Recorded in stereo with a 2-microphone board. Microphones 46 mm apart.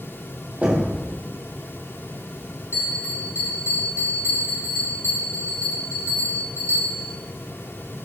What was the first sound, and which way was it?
Knocking, 30° right (ahead or behind).